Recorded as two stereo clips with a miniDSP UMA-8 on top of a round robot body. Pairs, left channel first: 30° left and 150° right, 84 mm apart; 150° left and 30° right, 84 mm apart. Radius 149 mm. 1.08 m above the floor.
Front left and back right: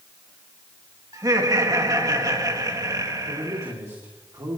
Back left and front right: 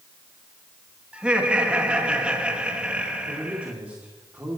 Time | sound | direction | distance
1.1 | laughter | 105° right | 3 m
3.3 | a man speaking | 100° right | 2.5 m